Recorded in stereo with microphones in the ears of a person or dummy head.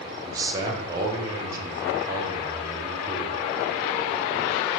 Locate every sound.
0.2 s a man speaking: 20° right (ahead or behind), 0.6 m